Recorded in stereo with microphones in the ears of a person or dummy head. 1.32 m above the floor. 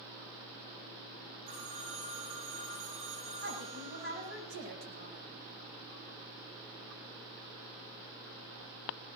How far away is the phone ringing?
About 7.5 m.